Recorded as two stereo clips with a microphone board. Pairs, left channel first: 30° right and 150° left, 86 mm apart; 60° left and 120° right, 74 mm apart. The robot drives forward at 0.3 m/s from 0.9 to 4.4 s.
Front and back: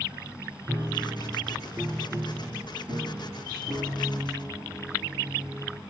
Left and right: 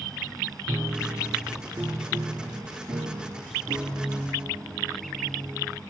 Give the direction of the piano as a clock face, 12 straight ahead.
5 o'clock.